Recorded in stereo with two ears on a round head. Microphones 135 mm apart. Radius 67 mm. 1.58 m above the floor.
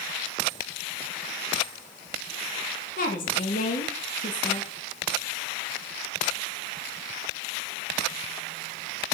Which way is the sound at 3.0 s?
55° left (ahead or behind).